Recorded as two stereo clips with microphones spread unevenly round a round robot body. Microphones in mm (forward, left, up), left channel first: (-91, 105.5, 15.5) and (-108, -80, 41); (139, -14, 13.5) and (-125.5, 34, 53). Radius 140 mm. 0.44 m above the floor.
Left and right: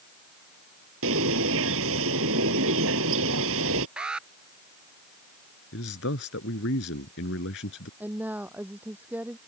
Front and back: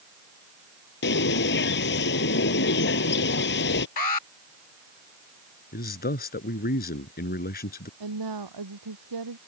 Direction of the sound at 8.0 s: 175° right.